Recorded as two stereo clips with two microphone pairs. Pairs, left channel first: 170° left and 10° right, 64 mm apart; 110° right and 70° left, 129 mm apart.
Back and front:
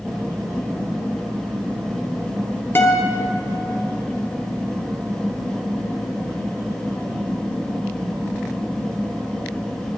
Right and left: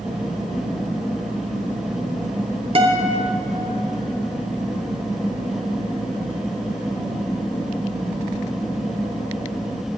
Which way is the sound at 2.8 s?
115° left.